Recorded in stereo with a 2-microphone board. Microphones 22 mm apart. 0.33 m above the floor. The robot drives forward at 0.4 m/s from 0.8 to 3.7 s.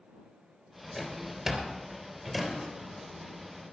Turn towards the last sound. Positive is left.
turn(degrees=-15)  # may be behind; listen again after turning